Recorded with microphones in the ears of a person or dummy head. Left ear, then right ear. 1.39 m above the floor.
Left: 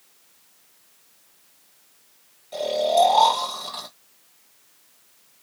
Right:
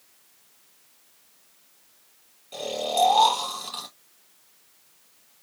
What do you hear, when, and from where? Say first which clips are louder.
2.5 s snoring: left 6 dB; 5° right (ahead or behind), 1.8 m